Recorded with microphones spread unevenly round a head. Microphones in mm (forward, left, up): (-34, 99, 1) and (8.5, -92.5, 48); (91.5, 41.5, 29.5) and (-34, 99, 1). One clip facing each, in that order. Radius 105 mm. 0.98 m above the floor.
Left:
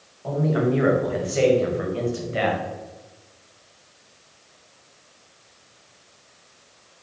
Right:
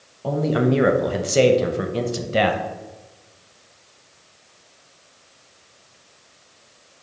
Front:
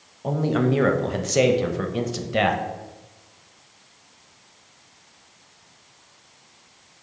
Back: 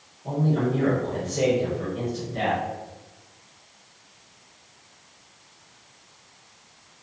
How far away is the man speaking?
About 0.6 m.